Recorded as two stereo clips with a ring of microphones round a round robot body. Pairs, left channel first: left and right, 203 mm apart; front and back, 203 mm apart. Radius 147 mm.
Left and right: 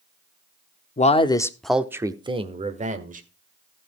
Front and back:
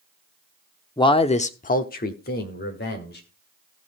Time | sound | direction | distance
1.0 | a man speaking | 60° left | 1.0 m